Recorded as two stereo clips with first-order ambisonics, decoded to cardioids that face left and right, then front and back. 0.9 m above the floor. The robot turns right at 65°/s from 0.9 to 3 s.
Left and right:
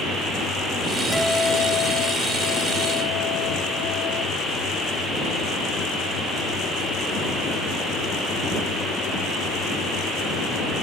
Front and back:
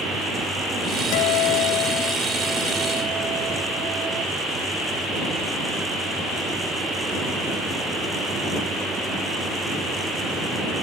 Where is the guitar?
5° right; by 4.2 s 120° left.